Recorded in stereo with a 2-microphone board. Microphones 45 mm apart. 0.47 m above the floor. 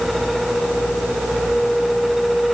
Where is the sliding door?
I don't hear a sliding door.